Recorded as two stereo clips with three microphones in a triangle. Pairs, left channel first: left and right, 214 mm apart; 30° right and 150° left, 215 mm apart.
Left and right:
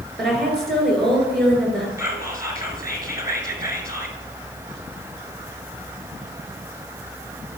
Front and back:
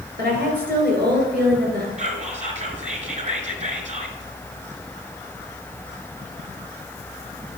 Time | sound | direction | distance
0.2 | a woman speaking | straight behind | 2.5 m
2.0 | whispering | 160° right | 1.7 m